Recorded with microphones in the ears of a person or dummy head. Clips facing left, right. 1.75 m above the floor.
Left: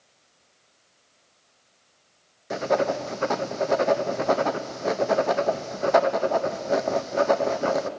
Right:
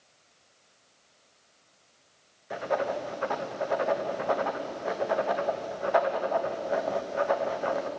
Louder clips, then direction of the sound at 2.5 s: Left 6 dB; 50° left (ahead or behind).